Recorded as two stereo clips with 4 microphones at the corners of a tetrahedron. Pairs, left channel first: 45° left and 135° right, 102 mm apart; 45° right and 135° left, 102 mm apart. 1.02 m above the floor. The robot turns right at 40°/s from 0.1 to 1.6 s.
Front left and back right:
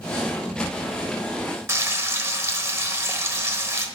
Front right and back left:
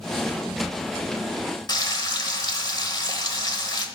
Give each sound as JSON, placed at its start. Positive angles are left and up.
{"t": 1.7, "sound": "frying", "azimuth_deg": -80, "distance_m": 1.1}